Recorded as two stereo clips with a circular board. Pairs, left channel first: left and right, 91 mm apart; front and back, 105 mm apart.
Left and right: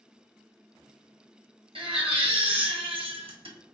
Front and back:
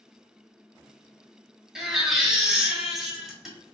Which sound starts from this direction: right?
A baby crying, at 1.8 s.